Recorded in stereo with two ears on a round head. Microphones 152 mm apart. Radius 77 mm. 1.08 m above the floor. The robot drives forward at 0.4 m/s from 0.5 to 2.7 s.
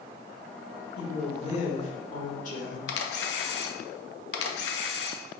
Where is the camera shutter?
70° left (ahead or behind), 0.6 m.